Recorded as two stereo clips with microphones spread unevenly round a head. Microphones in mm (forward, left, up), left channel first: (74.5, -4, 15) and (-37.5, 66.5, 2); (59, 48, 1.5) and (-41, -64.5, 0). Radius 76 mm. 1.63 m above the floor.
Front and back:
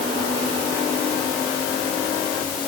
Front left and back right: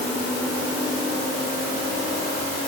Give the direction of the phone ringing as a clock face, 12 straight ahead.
I don't hear a phone ringing.